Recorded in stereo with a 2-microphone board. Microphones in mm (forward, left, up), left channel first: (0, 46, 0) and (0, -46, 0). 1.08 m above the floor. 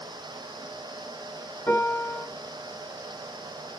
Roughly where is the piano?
Centre.